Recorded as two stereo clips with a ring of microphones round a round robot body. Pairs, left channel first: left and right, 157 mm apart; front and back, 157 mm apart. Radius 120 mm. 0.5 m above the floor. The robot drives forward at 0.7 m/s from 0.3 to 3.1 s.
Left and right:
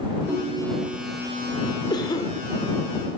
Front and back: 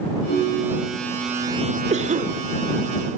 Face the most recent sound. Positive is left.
turn(degrees=160)